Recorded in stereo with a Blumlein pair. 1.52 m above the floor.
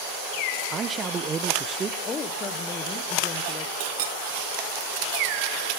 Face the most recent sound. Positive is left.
turn(degrees=-55)